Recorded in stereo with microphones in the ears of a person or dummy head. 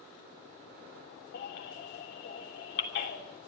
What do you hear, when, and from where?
1.3 s a baby crying: 65° left (ahead or behind), 2.5 m